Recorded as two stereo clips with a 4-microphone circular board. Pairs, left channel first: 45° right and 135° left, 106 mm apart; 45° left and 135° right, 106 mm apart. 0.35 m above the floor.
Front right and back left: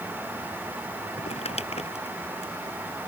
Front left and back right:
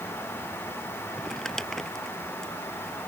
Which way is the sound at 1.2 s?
40° right.